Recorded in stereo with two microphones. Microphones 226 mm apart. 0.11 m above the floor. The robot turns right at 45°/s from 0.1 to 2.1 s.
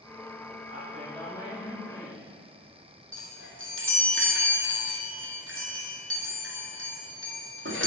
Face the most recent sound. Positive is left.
turn(degrees=-70)  # may be behind; listen again after turning